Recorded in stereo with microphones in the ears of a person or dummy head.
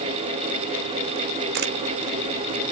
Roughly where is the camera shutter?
Right.